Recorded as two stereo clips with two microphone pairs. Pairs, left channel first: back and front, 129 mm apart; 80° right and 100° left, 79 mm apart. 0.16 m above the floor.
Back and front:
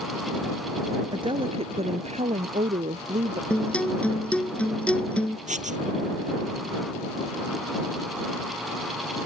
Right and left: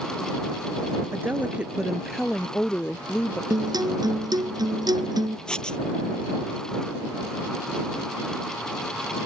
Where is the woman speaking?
45° left; by 3.4 s 15° right.